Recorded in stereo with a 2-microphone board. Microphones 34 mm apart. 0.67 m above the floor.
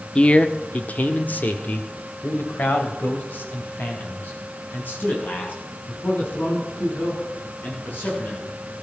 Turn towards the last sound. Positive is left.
turn(degrees=75)  # may be behind; listen again after turning